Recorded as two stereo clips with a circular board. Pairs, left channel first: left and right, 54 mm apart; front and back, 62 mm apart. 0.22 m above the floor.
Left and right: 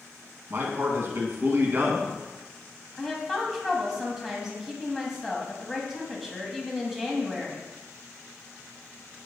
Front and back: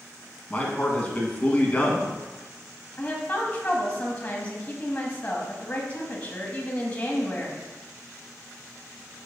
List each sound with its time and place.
0.5 s a man speaking: 60° right, 1.6 m
3.0 s a woman speaking: 15° right, 1.2 m